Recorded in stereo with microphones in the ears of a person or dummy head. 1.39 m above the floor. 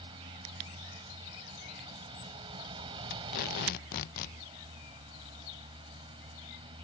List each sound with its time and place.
0.0 s a vehicle: 25° right (ahead or behind)
3.1 s tape being pulled: 50° left (ahead or behind)